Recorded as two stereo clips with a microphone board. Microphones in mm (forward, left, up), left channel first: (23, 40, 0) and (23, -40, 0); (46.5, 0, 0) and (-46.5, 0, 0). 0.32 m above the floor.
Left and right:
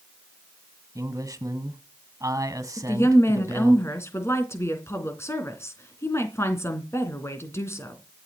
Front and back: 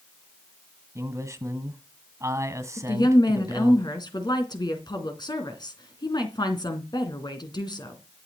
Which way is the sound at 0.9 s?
130° right.